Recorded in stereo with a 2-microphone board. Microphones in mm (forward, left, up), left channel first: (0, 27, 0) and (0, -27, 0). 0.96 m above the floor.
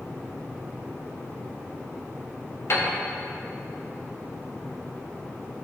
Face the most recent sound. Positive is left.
turn(degrees=60)  # may be behind; listen again after turning